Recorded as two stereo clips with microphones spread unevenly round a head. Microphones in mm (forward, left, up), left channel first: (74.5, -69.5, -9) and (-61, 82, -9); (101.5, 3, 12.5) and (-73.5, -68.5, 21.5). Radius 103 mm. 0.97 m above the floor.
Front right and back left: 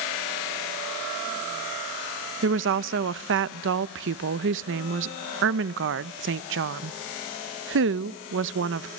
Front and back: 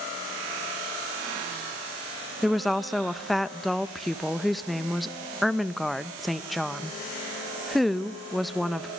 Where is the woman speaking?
110° left, 0.6 m.